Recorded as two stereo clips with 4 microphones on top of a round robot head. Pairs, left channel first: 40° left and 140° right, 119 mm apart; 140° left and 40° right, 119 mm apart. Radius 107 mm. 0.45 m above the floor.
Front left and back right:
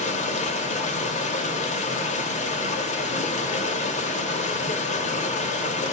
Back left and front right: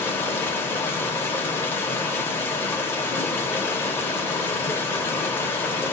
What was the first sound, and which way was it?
Running water, 65° left.